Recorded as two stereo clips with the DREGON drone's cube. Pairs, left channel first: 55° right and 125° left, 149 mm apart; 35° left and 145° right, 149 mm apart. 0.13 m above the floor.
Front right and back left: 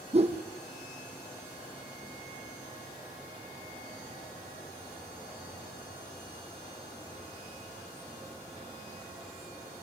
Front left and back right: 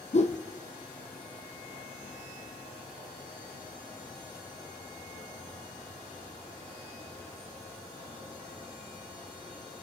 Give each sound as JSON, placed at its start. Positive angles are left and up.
{"t": 0.1, "sound": "a whoosh", "azimuth_deg": 75, "distance_m": 1.8}